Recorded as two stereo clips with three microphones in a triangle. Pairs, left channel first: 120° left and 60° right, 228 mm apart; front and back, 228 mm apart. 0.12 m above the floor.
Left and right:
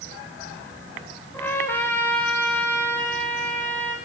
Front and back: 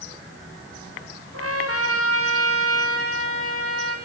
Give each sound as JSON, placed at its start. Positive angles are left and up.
{"t": 1.3, "sound": "a trumpet", "azimuth_deg": -160, "distance_m": 4.0}